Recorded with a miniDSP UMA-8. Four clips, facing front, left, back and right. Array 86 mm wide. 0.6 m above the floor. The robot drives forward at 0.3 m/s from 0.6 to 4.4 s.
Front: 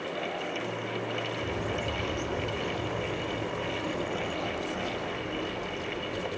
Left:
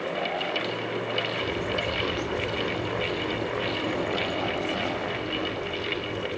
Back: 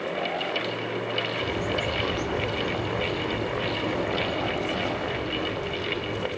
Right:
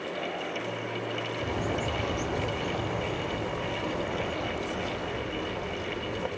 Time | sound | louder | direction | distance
1.4 | a bird | left 2 dB, back 4 dB | 105° right | 0.8 m